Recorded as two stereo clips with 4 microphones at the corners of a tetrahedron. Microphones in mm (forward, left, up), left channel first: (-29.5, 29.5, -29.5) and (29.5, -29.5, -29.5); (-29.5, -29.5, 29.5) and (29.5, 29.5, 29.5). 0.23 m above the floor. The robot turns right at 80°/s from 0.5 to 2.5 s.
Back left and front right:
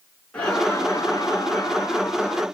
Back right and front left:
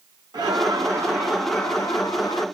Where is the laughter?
60° left, 3 m; by 2.5 s 145° right, 3 m.